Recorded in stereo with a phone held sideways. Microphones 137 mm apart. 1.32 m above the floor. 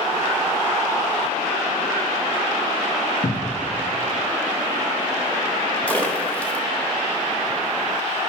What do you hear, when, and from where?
3.2 s a cupboard door: 55° left (ahead or behind), 0.5 m
5.9 s a splash: 10° left (ahead or behind), 0.8 m